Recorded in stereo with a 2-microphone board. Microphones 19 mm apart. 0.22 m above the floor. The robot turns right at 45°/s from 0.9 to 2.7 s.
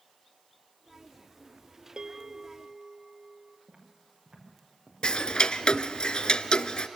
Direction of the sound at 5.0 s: 60° left (ahead or behind).